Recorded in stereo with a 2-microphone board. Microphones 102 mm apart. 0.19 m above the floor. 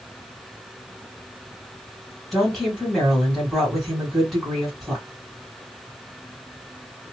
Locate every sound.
2.3 s a woman speaking: 5° left (ahead or behind), 1.8 m